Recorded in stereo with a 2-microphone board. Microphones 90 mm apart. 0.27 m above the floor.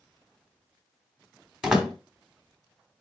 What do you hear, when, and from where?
1.6 s a door slam: 10° right (ahead or behind), 1.4 m